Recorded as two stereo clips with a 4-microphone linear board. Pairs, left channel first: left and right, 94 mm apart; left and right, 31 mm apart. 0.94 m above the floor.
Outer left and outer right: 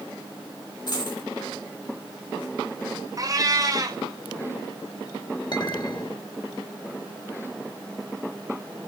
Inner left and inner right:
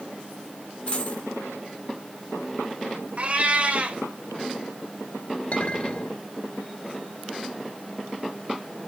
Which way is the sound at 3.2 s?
40° right (ahead or behind).